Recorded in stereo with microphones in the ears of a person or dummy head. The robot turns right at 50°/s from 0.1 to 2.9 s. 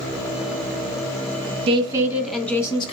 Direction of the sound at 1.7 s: 35° right.